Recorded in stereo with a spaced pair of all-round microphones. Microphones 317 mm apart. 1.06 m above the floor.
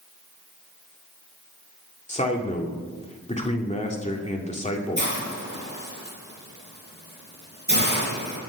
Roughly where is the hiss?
Right.